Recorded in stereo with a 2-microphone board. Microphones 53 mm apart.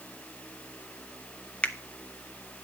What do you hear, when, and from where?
1.6 s a finger snap: 25° left (ahead or behind), 0.5 m